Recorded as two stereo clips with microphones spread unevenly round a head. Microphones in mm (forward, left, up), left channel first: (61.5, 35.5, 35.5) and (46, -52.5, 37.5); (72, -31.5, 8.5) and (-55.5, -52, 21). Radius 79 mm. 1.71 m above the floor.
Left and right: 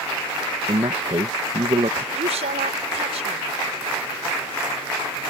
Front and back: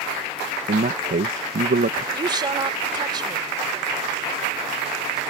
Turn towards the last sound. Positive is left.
turn(degrees=-115)